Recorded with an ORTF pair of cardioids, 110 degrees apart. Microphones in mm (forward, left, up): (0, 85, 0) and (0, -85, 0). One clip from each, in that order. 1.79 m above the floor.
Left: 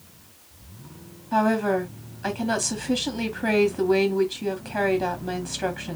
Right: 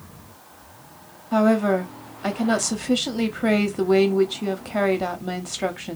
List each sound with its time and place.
1.3 s a woman speaking: 15° right, 1.0 m